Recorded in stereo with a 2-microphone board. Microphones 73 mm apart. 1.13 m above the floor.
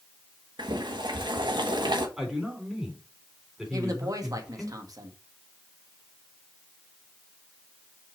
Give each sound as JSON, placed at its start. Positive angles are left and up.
{"t": 0.6, "sound": "boiling", "side_deg": -80, "distance_m": 1.3}
{"t": 2.2, "sound": "a man speaking", "side_deg": -10, "distance_m": 3.5}
{"t": 3.7, "sound": "a woman speaking", "side_deg": -50, "distance_m": 1.5}